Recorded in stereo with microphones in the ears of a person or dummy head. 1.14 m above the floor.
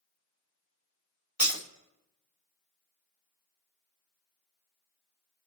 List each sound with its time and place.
1.4 s breaking glass: centre (ahead or behind), 1.2 m